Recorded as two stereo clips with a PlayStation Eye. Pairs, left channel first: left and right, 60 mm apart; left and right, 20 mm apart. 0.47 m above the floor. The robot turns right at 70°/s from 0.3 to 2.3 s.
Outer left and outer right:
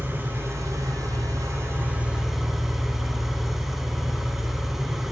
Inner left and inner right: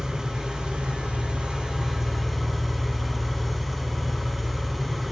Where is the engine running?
145° right, 4.5 m; by 5.1 s 5° right, 4.5 m.